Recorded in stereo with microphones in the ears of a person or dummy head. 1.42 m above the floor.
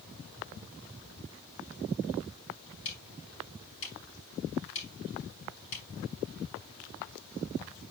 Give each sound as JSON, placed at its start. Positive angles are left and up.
{"t": 2.9, "sound": "ticking", "side_deg": 70, "distance_m": 4.5}